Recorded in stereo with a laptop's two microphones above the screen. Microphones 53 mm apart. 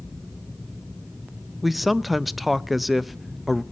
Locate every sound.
1.6 s a man speaking: centre (ahead or behind), 0.6 m